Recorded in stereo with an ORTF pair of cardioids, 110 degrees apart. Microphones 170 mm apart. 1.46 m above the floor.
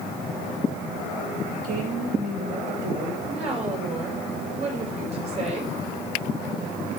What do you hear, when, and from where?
1.6 s a woman speaking: 55° right, 2.5 m
3.3 s a woman speaking: 40° right, 4.5 m